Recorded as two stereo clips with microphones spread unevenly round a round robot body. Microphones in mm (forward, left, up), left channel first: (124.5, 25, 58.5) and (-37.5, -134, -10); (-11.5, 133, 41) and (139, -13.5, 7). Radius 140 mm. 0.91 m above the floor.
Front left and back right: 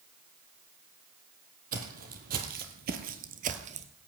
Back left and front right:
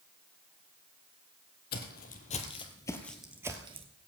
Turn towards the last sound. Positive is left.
turn(degrees=-75)